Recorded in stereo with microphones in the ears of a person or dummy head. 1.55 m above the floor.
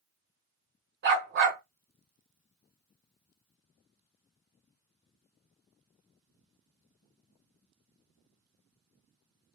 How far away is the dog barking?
About 1.9 m.